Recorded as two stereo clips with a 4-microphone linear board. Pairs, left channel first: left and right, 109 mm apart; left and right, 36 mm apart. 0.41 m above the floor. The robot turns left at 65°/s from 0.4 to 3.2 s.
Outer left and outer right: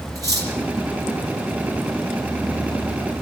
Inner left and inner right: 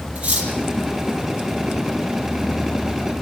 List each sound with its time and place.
0.1 s cutlery clinking: 35° right (ahead or behind), 6.5 m; by 0.5 s 40° right (ahead or behind), 6.5 m